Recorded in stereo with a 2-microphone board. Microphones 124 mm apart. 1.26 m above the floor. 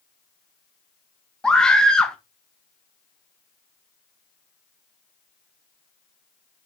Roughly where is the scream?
Centre.